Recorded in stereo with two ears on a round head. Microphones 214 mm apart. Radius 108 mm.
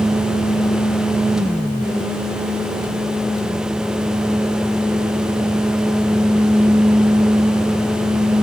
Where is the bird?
No bird in this recording.